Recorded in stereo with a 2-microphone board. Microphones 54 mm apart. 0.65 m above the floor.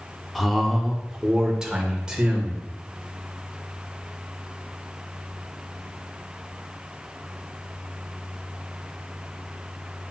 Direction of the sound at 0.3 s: 5° left (ahead or behind).